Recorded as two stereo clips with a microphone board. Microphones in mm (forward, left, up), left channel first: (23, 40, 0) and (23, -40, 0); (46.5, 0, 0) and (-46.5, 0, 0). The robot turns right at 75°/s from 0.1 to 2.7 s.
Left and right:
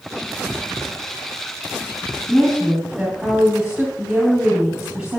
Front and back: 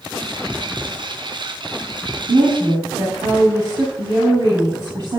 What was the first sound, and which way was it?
A woman speaking, 175° left.